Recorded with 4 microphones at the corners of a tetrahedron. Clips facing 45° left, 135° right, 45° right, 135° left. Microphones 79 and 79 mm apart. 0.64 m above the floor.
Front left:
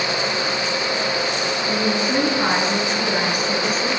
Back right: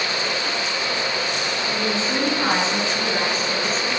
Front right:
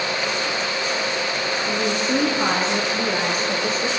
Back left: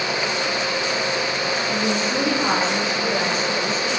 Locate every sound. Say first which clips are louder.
1.6 s a woman speaking: front left 4 dB, front right 2 dB; 25° right, 8 m; by 4.0 s 35° right, 9 m